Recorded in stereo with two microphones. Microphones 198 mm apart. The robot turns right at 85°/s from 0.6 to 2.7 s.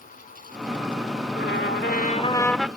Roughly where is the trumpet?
Left.